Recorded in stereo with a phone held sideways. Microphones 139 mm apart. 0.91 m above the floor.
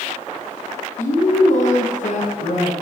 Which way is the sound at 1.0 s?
60° left (ahead or behind).